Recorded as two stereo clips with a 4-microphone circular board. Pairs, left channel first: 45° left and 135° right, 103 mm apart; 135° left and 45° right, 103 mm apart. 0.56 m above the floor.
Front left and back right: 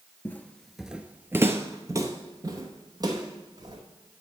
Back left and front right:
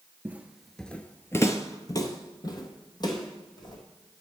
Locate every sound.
0.2 s footsteps: 5° left, 0.5 m; by 3.8 s straight behind, 1.7 m